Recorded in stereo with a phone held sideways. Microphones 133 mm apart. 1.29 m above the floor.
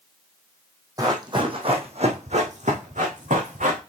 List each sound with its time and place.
1.0 s running footsteps: 30° right (ahead or behind), 2.5 m; by 3.8 s 75° right (ahead or behind), 4.5 m